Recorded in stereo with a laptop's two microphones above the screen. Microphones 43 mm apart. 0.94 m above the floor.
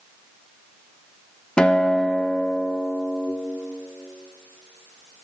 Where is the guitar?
20° left (ahead or behind), 0.5 m.